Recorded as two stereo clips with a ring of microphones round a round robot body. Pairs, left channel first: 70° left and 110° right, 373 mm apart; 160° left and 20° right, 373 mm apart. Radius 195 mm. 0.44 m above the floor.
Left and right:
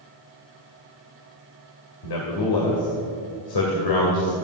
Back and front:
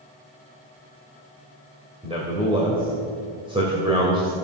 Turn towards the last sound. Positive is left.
turn(degrees=55)